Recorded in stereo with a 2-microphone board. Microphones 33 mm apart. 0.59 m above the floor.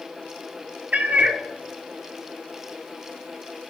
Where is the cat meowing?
55° right (ahead or behind), 0.6 m.